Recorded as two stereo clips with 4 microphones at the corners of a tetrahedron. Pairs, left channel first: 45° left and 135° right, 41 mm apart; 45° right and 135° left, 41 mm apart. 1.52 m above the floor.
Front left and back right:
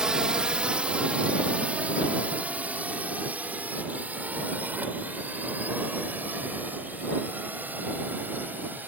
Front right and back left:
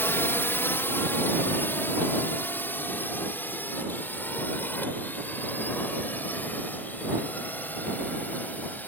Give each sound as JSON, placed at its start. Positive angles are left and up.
{"t": 0.0, "sound": "a drone", "azimuth_deg": -65}